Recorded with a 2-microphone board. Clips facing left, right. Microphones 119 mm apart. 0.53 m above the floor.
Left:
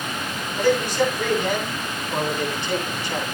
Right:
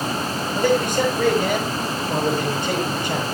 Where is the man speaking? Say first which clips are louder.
Even; 45° right (ahead or behind), 9.5 m.